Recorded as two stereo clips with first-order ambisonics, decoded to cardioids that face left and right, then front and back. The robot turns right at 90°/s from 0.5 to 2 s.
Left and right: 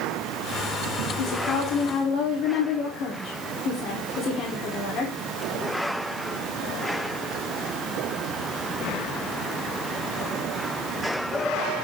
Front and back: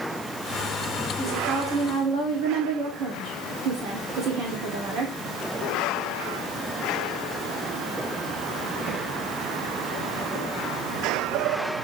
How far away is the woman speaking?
About 2.5 m.